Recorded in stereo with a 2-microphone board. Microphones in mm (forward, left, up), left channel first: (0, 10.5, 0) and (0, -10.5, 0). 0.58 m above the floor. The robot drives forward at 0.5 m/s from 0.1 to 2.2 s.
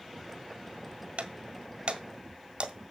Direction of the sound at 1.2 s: 70° right (ahead or behind).